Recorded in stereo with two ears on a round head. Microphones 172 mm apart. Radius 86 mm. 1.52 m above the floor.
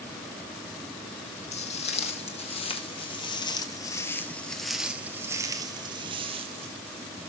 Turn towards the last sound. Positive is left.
turn(degrees=-30)  # may be behind; listen again after turning